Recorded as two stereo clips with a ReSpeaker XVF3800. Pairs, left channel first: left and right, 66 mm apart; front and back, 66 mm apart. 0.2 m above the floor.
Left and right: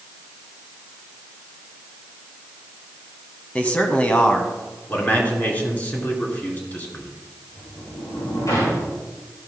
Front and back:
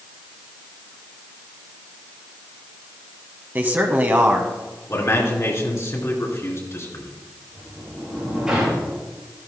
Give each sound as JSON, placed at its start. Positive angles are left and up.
{"t": 3.5, "sound": "a man speaking", "azimuth_deg": 140, "distance_m": 1.2}
{"t": 4.9, "sound": "a man speaking", "azimuth_deg": 30, "distance_m": 3.0}
{"t": 7.5, "sound": "a sliding door", "azimuth_deg": 105, "distance_m": 5.0}